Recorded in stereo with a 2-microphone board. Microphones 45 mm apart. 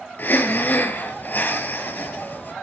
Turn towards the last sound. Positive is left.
turn(degrees=45)  # may be behind; listen again after turning